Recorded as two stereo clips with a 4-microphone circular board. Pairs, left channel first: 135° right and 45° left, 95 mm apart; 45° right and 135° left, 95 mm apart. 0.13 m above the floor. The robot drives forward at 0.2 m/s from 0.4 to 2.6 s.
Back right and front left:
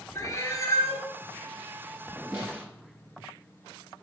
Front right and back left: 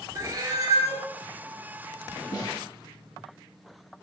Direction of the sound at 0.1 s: 175° left.